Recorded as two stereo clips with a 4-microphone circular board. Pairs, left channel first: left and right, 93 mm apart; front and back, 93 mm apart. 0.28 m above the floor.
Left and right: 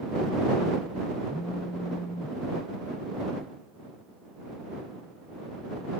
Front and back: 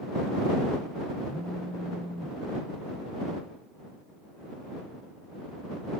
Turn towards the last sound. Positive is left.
turn(degrees=105)